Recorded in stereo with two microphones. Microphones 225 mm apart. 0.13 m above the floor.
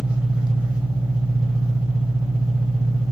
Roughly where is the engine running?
Centre.